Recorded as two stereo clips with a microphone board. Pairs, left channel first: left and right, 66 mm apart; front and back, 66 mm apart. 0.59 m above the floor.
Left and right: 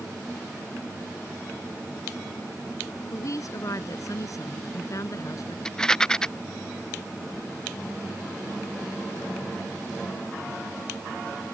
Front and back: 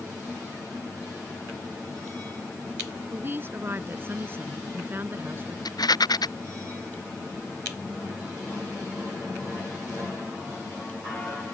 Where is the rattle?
10° left.